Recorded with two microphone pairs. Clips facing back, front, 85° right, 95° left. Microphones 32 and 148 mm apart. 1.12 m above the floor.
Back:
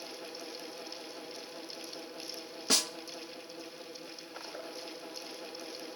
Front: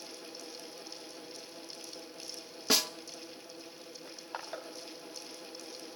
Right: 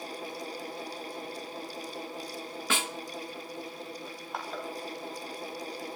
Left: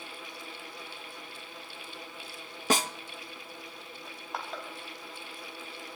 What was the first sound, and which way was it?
A snare drum, 80° left.